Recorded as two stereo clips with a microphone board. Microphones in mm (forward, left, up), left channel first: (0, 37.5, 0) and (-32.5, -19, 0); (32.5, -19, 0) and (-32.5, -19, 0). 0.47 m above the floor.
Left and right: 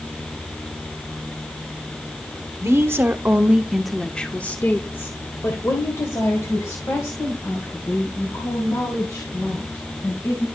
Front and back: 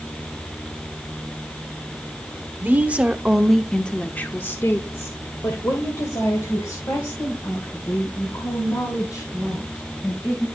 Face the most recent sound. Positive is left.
turn(degrees=30)